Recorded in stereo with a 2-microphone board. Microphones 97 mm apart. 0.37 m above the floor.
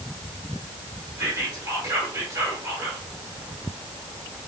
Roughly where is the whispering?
Right.